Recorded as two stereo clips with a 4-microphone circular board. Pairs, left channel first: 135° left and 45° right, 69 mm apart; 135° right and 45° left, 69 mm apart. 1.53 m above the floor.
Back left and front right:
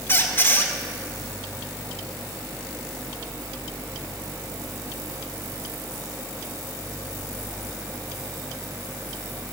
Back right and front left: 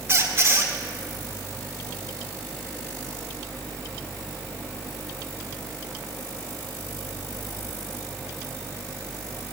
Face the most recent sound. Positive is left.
turn(degrees=85)